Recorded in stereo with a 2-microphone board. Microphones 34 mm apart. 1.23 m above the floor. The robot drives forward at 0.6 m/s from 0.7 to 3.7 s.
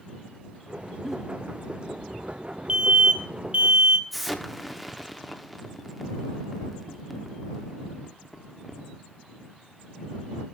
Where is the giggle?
10° right (ahead or behind), 0.6 m.